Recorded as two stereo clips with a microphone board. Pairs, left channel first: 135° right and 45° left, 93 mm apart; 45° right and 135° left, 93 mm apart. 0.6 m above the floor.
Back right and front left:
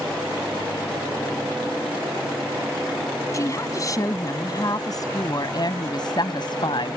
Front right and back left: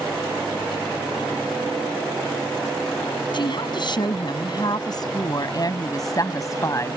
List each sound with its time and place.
3.3 s a woman speaking: 80° right; by 7.0 s 105° right